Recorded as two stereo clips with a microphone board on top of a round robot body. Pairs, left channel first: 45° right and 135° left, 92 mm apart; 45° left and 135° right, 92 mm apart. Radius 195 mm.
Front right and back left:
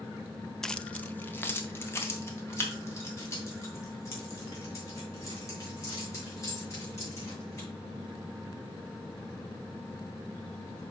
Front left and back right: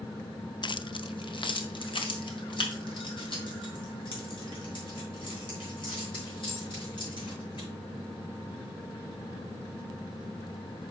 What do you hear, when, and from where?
0.6 s keys jangling: 40° left, 0.6 m; by 7.7 s 10° left, 6 m